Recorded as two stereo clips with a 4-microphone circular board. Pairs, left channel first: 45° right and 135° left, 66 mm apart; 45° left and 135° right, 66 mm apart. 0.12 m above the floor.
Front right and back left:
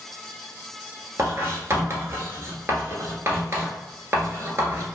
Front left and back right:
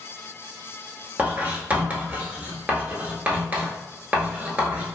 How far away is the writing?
About 0.7 m.